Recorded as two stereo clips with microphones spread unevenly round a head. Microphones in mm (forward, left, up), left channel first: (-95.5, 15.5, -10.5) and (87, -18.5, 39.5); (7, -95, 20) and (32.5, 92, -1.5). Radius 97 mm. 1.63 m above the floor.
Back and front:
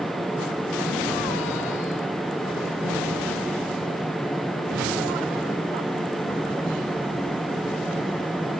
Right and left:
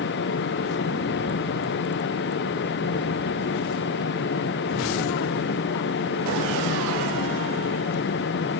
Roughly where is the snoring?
No snoring in this recording.